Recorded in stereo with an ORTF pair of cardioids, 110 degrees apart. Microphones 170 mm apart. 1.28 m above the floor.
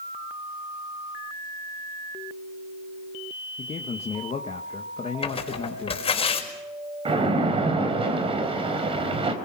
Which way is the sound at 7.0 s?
35° right.